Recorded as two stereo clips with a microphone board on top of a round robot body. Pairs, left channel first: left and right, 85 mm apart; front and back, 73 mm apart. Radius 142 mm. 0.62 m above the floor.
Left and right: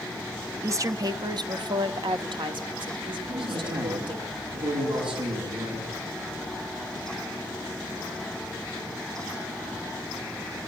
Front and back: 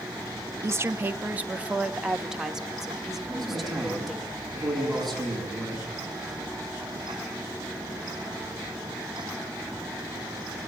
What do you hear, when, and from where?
0.6 s a woman speaking: 135° right, 0.9 m; by 4.3 s 90° right, 3 m
3.3 s a man speaking: 85° right, 7.5 m